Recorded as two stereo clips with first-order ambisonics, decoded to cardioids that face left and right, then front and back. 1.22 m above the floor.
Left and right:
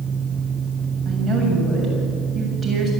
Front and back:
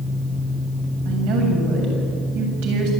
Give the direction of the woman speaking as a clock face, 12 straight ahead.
6 o'clock.